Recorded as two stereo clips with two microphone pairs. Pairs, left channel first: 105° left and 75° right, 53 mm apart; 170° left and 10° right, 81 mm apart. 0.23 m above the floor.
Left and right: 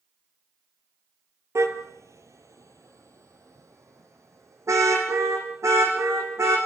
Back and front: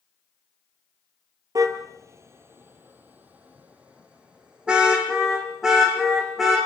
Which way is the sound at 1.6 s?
50° right.